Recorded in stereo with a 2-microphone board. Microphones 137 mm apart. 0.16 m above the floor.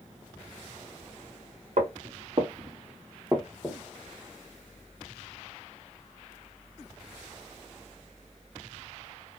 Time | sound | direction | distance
1.8 | footsteps | 60° right (ahead or behind) | 1.2 m